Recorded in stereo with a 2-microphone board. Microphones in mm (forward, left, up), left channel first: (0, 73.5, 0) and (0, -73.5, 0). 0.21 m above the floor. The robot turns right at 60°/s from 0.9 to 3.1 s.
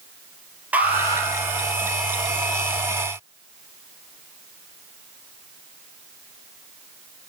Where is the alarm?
10° right (ahead or behind), 3 m; by 1.3 s 30° right (ahead or behind), 3 m.